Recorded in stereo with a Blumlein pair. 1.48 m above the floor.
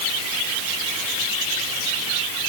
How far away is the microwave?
No microwave in this recording.